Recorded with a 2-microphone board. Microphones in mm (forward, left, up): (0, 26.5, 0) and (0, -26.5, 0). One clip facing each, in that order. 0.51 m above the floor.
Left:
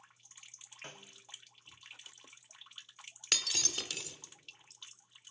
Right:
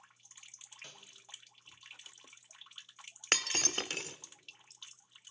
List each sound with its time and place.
0.8 s a snare drum: 35° left (ahead or behind), 0.6 m
3.3 s breaking glass: 40° right (ahead or behind), 1.0 m